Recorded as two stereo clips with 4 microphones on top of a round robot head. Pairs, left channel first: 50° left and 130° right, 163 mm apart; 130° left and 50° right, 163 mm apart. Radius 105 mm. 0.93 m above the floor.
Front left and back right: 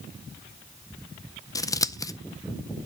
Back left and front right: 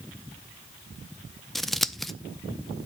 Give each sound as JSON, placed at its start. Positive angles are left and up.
{"t": 1.6, "sound": "scissors", "azimuth_deg": 45, "distance_m": 0.6}